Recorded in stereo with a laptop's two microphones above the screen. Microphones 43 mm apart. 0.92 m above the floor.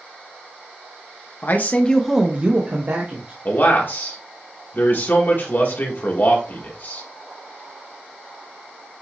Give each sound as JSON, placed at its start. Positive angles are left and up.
{"t": 1.4, "sound": "a man speaking", "side_deg": 50, "distance_m": 0.9}
{"t": 3.5, "sound": "a man speaking", "side_deg": 55, "distance_m": 1.4}